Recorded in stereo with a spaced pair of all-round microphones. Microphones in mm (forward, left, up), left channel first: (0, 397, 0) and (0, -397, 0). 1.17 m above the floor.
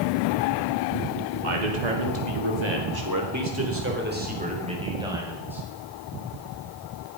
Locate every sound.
1.4 s a man speaking: 70° right (ahead or behind), 2.5 m; by 5.6 s centre (ahead or behind), 6.5 m